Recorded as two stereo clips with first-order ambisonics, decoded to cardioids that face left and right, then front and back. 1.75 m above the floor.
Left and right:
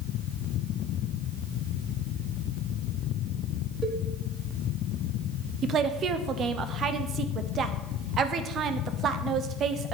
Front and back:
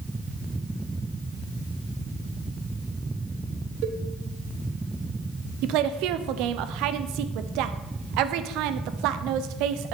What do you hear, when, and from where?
3.8 s a cowbell: 165° right, 1.3 m
5.6 s a woman speaking: 150° right, 0.9 m